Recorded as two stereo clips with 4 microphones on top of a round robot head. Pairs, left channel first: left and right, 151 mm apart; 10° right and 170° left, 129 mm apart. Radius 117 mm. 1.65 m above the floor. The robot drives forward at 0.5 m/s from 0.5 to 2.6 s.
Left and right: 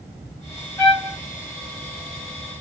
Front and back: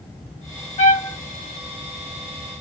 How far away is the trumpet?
About 1.3 m.